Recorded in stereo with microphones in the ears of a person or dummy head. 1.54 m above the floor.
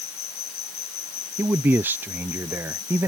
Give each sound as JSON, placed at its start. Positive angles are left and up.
{"t": 0.0, "sound": "an insect", "side_deg": 40}
{"t": 1.4, "sound": "a man speaking", "side_deg": -10}